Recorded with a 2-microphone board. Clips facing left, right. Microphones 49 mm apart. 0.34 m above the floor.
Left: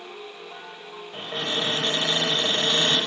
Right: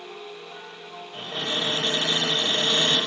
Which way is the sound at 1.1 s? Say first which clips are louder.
Left 1 dB; 30° left (ahead or behind).